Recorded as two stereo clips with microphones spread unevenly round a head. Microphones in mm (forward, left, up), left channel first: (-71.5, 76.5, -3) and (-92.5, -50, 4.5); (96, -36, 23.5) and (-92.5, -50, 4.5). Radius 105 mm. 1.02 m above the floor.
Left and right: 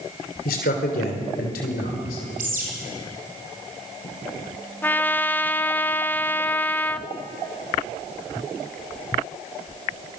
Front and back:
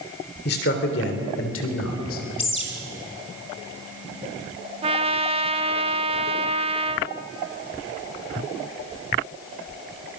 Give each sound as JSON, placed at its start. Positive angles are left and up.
{"t": 0.5, "sound": "a man speaking", "azimuth_deg": 50, "distance_m": 3.0}
{"t": 2.4, "sound": "a bird", "azimuth_deg": -55, "distance_m": 4.0}
{"t": 4.8, "sound": "a trumpet", "azimuth_deg": 145, "distance_m": 0.9}